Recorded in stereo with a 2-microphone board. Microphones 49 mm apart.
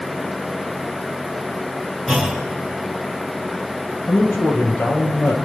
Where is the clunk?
Centre (ahead or behind), 4.5 m.